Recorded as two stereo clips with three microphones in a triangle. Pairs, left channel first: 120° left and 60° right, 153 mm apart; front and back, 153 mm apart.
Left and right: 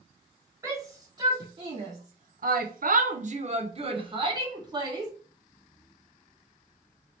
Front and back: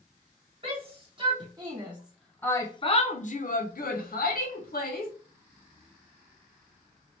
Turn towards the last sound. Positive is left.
turn(degrees=5)